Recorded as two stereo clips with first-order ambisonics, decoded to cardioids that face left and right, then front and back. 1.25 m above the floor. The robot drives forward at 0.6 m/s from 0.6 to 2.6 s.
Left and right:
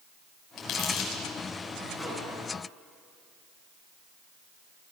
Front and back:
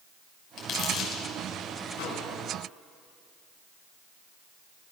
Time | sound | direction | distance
0.6 | crumpling | 50° left | 6 m
1.9 | a microwave | 5° right | 10 m